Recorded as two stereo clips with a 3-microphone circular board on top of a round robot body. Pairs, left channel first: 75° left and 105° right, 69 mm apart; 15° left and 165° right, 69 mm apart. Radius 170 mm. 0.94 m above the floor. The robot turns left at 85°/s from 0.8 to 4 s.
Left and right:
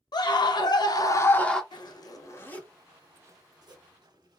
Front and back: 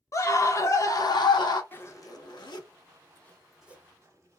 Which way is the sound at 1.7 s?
80° left.